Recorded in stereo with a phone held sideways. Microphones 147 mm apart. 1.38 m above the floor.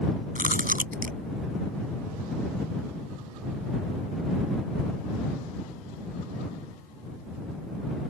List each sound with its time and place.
0.3 s chewing: 75° right (ahead or behind)